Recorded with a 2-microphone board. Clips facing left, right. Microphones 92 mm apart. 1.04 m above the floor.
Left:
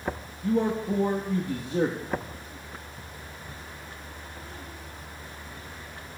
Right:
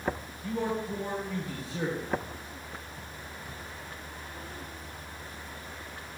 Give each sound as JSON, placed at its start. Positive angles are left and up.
{"t": 0.4, "sound": "a man speaking", "side_deg": 55, "distance_m": 1.2}